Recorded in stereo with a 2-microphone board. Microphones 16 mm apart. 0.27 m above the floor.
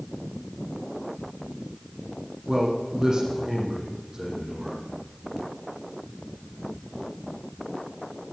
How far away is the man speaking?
About 9.5 m.